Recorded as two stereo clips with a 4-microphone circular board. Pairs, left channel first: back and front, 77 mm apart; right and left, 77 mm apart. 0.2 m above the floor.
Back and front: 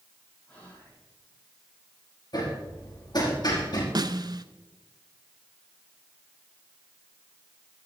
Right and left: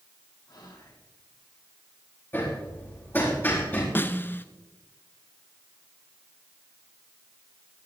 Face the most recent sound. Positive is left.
turn(degrees=-25)